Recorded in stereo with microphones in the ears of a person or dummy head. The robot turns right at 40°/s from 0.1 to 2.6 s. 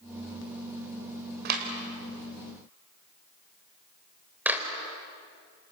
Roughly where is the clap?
Right.